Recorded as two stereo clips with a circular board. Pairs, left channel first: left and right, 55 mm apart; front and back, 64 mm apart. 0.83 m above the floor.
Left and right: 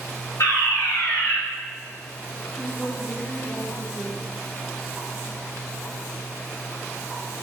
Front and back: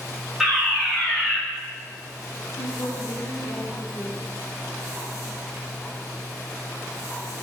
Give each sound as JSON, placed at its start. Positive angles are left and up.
{"t": 0.4, "sound": "a fire alarm", "azimuth_deg": 95, "distance_m": 5.0}
{"t": 2.5, "sound": "a woman speaking", "azimuth_deg": 25, "distance_m": 4.5}